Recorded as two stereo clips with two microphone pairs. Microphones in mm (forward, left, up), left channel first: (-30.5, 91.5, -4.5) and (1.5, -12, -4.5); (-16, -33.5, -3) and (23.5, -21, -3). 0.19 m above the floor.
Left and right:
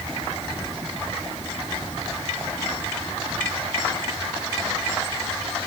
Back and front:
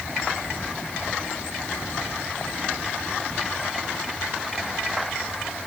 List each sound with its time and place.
Only background noise.